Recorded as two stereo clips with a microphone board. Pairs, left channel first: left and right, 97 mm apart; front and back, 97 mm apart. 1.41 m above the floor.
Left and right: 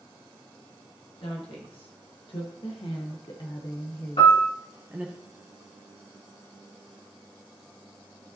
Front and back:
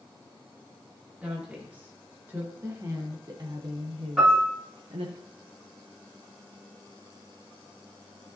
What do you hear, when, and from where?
1.2 s a woman speaking: 105° left, 2 m; by 5.2 s 155° right, 0.8 m
4.2 s a piano: 95° left, 3.5 m